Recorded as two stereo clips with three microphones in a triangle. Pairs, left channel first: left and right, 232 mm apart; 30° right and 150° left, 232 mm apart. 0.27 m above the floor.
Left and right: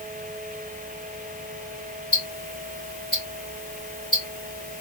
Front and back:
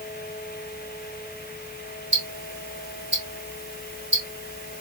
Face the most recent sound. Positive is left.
turn(degrees=150)